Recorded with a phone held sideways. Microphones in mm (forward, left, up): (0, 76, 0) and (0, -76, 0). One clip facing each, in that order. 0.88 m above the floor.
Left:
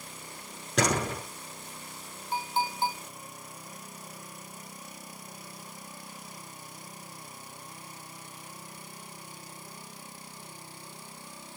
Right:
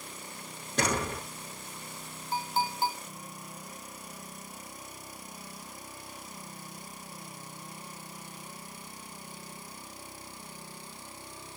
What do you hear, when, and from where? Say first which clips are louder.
0.8 s a door slam: left 3 dB; 90° left, 7 m
2.3 s a clink: even; 20° left (ahead or behind), 5.5 m